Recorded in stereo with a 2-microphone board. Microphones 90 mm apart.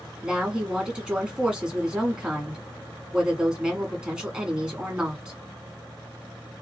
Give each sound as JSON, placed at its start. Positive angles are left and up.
{"t": 0.2, "sound": "a woman speaking", "side_deg": -10, "distance_m": 1.6}